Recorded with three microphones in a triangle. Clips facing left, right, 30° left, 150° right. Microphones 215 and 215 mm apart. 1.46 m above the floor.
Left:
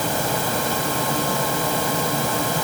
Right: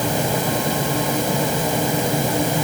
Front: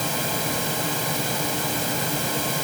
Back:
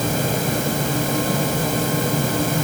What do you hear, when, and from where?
Only background noise.